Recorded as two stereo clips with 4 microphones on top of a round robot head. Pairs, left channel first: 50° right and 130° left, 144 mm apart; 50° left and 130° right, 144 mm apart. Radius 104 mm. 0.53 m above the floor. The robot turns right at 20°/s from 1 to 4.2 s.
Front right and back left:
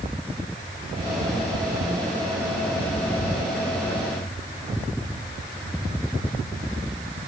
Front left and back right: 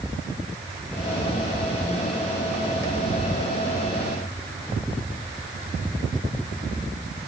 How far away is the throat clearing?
I don't hear throat clearing.